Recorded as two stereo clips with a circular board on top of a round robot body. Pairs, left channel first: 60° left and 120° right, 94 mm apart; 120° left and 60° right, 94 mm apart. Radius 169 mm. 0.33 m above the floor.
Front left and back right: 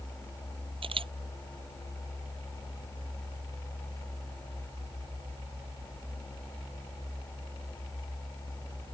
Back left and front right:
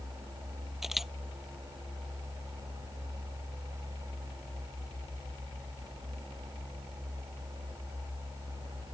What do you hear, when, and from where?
0.8 s a camera shutter: 145° right